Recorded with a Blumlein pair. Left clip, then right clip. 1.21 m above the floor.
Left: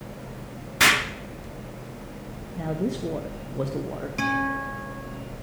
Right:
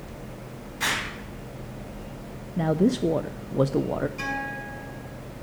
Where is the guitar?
65° left, 7 m.